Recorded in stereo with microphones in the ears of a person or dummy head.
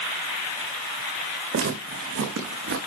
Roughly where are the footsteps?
Right.